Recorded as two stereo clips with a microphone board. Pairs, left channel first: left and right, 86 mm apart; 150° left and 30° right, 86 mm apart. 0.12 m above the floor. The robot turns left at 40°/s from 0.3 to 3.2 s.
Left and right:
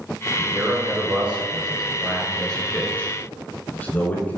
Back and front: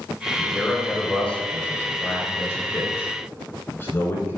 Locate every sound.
0.4 s a man speaking: 115° right, 1.2 m; by 4.4 s 130° left, 1.2 m